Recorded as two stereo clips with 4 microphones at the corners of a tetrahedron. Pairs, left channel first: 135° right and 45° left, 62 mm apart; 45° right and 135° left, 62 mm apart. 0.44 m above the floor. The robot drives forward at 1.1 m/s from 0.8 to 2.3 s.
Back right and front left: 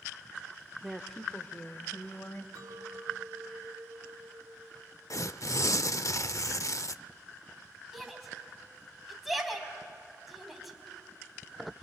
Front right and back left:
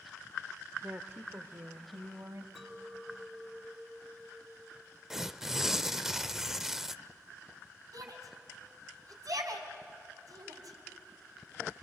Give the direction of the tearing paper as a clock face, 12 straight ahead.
5 o'clock.